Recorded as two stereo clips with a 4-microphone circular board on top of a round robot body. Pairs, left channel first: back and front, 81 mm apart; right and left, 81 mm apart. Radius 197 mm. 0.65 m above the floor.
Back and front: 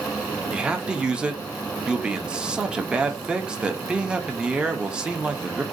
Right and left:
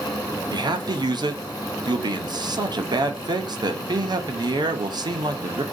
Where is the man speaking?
80° left, 0.7 m.